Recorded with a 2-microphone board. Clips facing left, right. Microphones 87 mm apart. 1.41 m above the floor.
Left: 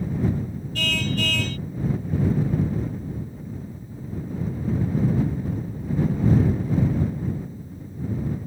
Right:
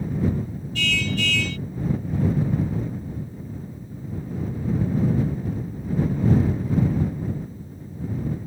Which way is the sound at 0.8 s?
45° left (ahead or behind).